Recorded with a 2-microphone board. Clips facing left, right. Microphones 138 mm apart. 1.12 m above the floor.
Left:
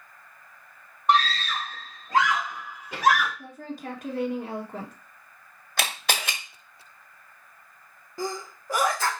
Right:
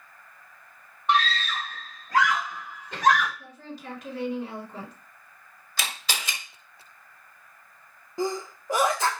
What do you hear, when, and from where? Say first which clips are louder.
1.1 s a scream: left 2 dB; 40° left (ahead or behind), 2 m; by 3.3 s 5° left (ahead or behind), 1.9 m
3.4 s a woman speaking: left 4 dB; 50° left (ahead or behind), 2.0 m
5.8 s a camera shutter: left 5 dB; 60° left (ahead or behind), 1.5 m
8.2 s a sneeze: right 4 dB; 20° right (ahead or behind), 1.0 m